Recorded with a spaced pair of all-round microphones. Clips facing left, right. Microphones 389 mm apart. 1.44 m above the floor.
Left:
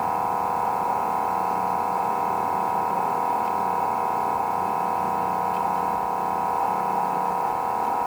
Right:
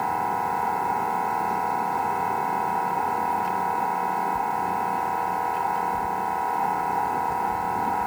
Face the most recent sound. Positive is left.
turn(degrees=-30)  # may be behind; listen again after turning